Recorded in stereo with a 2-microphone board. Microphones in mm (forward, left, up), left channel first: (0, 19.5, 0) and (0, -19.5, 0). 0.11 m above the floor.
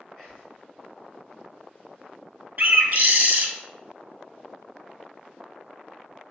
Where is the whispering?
20° left (ahead or behind), 1.6 m.